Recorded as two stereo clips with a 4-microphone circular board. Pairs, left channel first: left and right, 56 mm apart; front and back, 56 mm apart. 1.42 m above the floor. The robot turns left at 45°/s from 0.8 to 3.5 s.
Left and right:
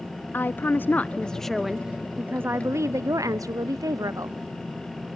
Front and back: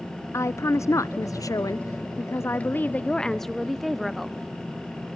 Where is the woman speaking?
35° left, 0.5 m; by 4.4 s 90° right, 0.5 m.